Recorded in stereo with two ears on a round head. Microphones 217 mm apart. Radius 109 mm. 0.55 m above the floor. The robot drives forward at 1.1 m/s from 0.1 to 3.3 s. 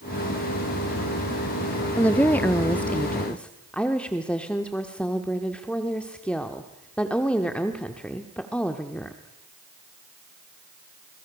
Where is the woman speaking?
5° left (ahead or behind), 0.9 m.